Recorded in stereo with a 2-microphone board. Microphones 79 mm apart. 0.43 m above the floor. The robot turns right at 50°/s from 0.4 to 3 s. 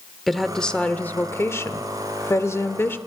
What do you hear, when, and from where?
0.3 s a woman speaking: 5° left, 1.1 m; by 3.0 s 135° left, 1.1 m